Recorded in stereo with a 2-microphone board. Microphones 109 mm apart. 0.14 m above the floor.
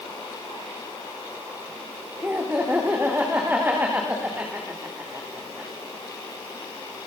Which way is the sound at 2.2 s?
15° right (ahead or behind).